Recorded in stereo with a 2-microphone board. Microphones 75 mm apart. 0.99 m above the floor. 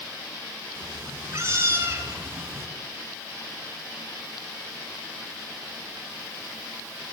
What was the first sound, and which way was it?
A cat meowing, 40° right (ahead or behind).